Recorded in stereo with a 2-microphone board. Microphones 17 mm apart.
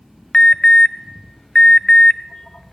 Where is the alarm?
60° left (ahead or behind), 0.7 m.